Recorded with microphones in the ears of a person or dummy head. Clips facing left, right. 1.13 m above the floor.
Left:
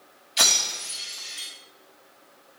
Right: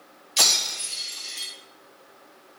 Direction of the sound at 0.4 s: 70° right (ahead or behind).